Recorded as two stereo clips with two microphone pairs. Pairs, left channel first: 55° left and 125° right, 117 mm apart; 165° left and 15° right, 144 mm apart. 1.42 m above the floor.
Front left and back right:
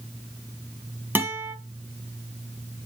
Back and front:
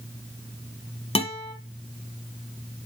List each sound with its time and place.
1.1 s a guitar: 170° left, 1.6 m